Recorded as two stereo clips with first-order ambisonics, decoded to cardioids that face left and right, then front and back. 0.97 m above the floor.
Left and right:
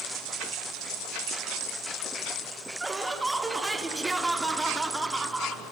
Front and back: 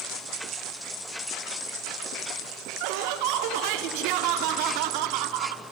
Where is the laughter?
175° right, 1.8 m.